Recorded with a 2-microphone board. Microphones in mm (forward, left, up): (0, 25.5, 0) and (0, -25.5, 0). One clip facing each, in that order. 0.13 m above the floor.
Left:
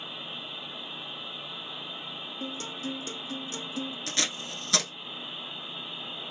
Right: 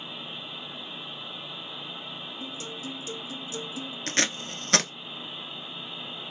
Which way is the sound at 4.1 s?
50° right (ahead or behind).